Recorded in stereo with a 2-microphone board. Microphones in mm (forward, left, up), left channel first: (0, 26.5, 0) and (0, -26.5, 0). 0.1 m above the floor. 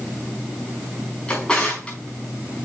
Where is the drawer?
20° left (ahead or behind), 4.5 m.